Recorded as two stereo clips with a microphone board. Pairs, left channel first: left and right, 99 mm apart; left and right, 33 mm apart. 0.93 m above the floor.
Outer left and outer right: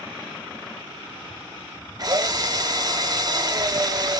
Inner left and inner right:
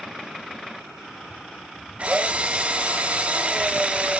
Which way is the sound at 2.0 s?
40° right (ahead or behind).